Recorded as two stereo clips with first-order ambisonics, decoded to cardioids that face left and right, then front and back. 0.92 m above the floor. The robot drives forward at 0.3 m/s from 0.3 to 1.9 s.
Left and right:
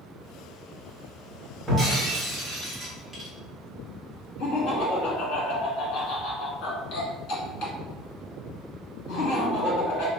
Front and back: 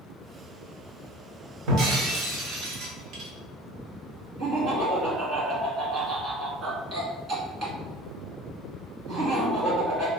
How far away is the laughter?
About 1.3 m.